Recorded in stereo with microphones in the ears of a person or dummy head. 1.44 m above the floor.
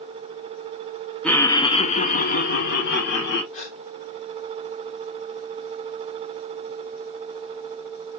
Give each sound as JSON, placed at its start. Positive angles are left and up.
{"t": 1.2, "sound": "laughter", "side_deg": 5, "distance_m": 0.8}
{"t": 3.5, "sound": "a gasp", "side_deg": 40, "distance_m": 1.4}